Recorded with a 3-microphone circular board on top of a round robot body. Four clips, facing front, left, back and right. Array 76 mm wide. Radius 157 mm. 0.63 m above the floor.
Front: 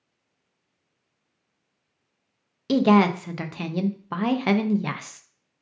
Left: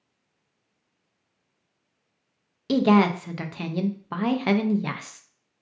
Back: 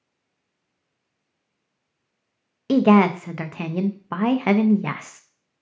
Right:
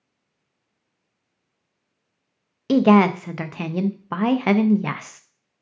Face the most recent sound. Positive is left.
turn(degrees=-125)